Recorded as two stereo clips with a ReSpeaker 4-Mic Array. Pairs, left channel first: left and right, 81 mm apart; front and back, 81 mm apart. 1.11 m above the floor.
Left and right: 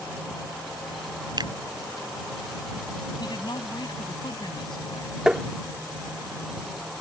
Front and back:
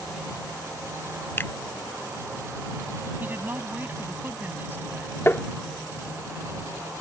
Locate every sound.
1.4 s a finger snap: 65° right
3.2 s a woman speaking: 115° left
5.3 s tapping: 15° right